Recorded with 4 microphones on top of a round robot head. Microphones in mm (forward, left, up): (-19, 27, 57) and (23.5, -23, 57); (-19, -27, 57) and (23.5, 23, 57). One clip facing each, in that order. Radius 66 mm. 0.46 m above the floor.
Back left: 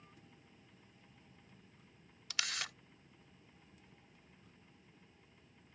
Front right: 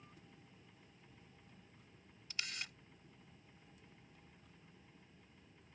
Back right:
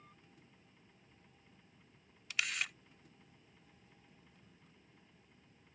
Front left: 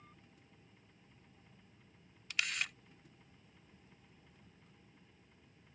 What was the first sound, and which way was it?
A camera shutter, 140° left.